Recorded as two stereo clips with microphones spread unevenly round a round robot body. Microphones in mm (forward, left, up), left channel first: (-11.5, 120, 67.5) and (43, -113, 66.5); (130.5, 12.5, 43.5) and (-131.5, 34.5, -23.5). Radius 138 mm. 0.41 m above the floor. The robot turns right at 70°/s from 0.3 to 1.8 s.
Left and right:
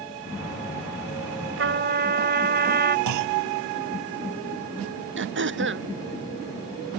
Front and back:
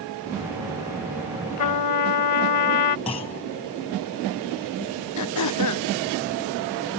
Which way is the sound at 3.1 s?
75° right.